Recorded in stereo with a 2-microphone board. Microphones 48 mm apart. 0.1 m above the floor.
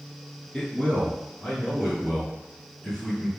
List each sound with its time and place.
0.5 s a man speaking: 20° left (ahead or behind), 1.3 m; by 3.3 s 15° left (ahead or behind), 3 m